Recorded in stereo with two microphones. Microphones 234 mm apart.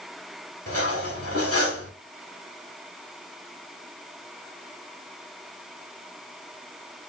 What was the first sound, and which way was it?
Cutlery clinking, 75° left (ahead or behind).